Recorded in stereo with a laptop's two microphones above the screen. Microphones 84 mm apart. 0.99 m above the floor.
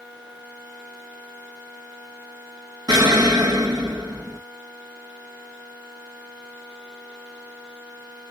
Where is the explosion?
50° right (ahead or behind), 1.4 m.